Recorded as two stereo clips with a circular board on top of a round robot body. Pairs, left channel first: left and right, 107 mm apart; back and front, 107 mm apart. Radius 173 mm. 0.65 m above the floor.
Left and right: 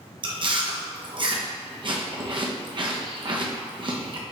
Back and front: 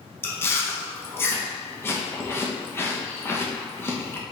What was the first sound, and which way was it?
Chewing, 115° right.